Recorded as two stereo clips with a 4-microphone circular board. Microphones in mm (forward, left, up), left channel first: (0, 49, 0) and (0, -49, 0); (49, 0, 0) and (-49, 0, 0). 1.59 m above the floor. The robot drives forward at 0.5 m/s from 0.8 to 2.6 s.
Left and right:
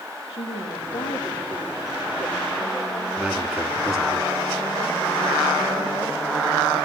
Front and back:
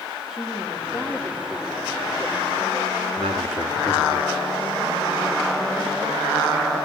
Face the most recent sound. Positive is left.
turn(degrees=-175)